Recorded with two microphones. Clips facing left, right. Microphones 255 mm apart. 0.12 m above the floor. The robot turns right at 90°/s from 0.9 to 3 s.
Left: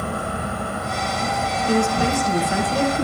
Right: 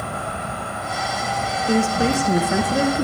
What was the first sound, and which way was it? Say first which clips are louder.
An insect: left 3 dB; 120° left.